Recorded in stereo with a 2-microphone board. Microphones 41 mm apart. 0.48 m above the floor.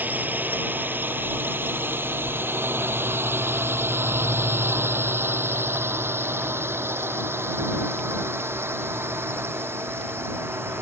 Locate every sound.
0.0 s a drone: 50° right (ahead or behind); by 10.8 s 85° right